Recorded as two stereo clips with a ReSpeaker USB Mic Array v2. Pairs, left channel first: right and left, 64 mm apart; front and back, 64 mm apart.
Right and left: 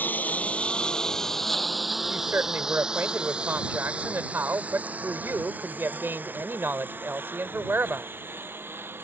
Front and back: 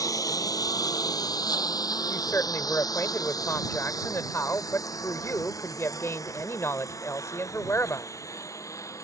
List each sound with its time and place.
0.0 s a lawn mower: 30° right; by 9.1 s 35° left
2.1 s a woman speaking: 40° left